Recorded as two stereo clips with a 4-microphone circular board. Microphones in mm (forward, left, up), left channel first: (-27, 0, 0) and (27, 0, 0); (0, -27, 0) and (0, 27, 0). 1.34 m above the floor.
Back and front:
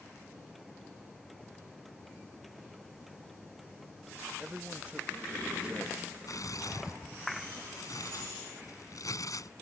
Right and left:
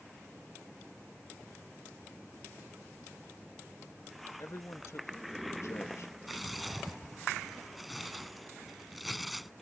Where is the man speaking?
65° right.